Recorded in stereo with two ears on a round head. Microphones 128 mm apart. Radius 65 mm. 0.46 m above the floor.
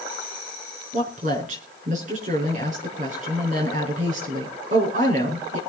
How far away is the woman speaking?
About 6 m.